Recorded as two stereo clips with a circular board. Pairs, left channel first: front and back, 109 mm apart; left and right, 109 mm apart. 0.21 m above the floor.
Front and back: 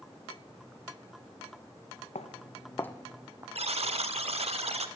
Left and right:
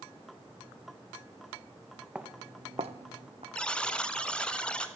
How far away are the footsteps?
About 1.0 m.